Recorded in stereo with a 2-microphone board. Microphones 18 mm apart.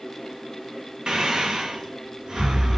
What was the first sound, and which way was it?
Breathing, 40° right (ahead or behind).